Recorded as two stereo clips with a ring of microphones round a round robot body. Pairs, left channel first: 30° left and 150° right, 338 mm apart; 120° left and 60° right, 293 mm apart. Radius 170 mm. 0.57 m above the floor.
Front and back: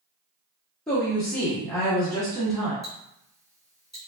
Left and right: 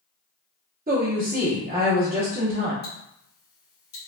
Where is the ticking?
120° left, 1.4 m.